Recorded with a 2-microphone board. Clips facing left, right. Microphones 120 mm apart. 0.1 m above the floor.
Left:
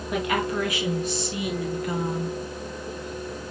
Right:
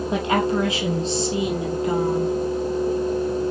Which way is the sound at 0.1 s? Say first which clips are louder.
Right 4 dB; 25° right (ahead or behind).